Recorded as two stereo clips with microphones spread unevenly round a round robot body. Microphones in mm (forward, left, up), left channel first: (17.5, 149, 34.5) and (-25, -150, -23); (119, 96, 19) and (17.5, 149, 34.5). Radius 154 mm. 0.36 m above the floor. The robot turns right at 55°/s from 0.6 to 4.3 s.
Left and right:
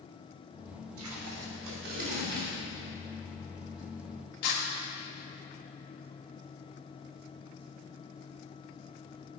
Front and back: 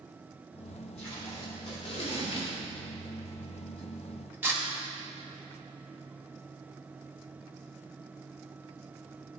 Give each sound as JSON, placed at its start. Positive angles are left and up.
{"t": 1.0, "sound": "tape being pulled", "azimuth_deg": -105, "distance_m": 1.3}